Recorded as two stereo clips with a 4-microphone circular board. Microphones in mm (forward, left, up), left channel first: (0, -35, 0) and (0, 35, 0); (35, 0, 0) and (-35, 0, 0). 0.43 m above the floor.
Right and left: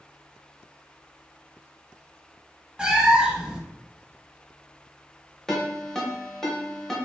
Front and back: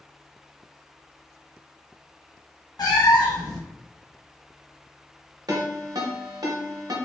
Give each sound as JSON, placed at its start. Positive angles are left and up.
{"t": 2.8, "sound": "a cat meowing", "azimuth_deg": 15, "distance_m": 0.5}
{"t": 5.5, "sound": "a ringtone", "azimuth_deg": -170, "distance_m": 0.8}